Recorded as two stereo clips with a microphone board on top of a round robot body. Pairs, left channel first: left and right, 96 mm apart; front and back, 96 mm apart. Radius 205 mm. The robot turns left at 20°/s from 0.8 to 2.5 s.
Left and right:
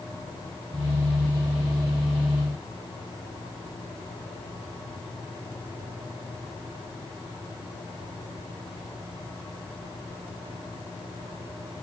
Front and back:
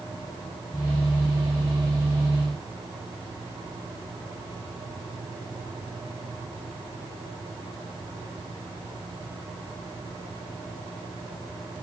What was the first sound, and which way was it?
Only background noise.